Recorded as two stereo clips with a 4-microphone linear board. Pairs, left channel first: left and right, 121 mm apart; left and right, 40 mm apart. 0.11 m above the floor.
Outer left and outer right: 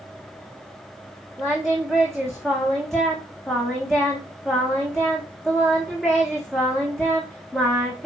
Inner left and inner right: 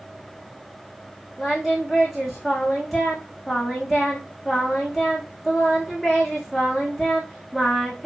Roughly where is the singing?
Centre.